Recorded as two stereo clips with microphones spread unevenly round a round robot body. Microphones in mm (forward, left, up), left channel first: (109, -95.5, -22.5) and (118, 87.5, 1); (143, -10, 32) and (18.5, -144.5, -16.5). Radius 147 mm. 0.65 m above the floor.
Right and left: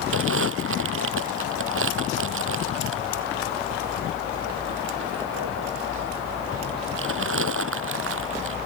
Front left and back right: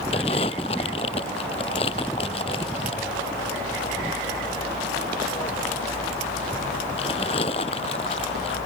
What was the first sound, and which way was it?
Crumpling, 120° left.